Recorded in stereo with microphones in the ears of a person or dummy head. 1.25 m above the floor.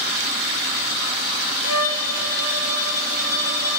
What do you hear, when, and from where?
1.6 s a violin: 85° left, 1.9 m